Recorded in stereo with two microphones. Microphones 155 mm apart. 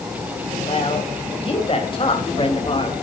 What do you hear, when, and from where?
0.7 s a woman speaking: 40° left (ahead or behind), 4.5 m; by 2.9 s 35° left (ahead or behind), 3.5 m